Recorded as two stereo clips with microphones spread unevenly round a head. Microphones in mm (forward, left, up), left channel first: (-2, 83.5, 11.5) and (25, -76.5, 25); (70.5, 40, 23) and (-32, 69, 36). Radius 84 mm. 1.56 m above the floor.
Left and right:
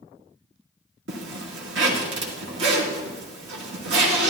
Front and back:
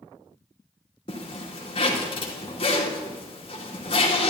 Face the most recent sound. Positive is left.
turn(degrees=-75)